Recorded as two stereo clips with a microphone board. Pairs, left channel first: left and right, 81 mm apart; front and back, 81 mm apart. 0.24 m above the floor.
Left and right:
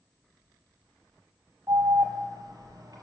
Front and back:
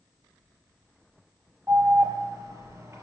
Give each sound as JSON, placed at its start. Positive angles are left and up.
{"t": 1.7, "sound": "an alarm", "azimuth_deg": -125, "distance_m": 3.5}